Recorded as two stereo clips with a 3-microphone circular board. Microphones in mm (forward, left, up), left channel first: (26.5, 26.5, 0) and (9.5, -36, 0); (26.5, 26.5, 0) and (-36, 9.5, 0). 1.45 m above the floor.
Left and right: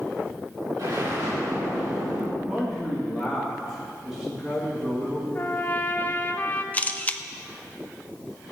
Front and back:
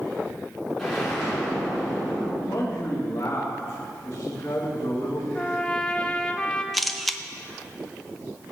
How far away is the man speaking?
About 2.5 m.